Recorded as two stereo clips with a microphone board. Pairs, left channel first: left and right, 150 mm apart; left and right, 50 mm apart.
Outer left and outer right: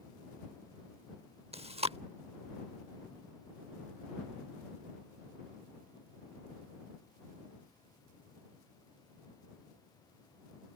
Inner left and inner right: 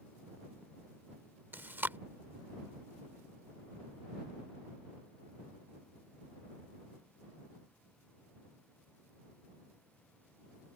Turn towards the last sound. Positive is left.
turn(degrees=-40)  # may be behind; listen again after turning